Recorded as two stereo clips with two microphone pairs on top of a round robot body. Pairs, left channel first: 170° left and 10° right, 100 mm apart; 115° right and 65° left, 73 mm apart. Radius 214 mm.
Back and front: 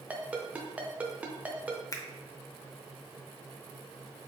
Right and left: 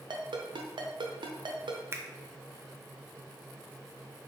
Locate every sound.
0.1 s a ringtone: 70° left, 0.5 m
1.9 s a finger snap: 120° left, 0.8 m